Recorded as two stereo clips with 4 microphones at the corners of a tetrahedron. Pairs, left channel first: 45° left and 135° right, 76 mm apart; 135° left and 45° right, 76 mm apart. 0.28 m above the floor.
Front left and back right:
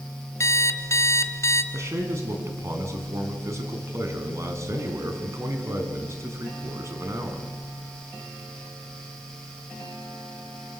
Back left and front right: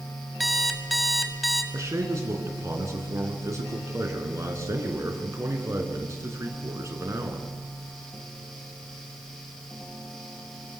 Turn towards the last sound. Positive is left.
turn(degrees=-90)